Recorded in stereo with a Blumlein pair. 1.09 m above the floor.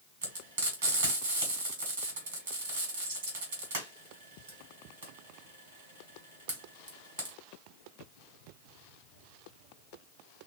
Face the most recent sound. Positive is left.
turn(degrees=-65)